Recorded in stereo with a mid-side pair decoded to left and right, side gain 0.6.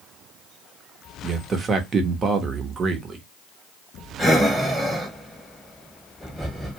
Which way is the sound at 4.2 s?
5° right.